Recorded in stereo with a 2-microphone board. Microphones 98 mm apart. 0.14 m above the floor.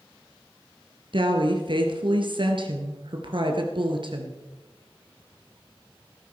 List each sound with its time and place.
1.1 s a woman speaking: 60° right (ahead or behind), 2 m